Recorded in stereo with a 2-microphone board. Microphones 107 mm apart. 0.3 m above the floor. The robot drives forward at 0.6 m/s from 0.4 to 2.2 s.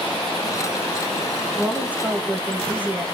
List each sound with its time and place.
1.6 s a woman speaking: 10° right (ahead or behind), 1.7 m; by 3.0 s 15° right (ahead or behind), 1.4 m